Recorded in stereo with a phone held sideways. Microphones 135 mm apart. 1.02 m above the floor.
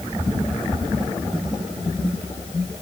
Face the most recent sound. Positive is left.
No sound to turn to.